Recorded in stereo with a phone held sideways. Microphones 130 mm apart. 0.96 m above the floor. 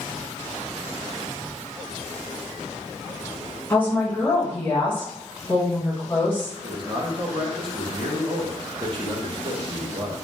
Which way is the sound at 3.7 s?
10° left (ahead or behind).